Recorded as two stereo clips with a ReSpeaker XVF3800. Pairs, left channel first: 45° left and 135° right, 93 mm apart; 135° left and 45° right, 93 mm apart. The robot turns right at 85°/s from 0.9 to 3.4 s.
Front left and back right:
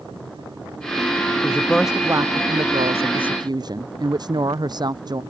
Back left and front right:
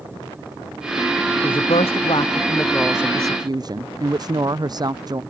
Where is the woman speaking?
100° left; by 5.2 s 90° right.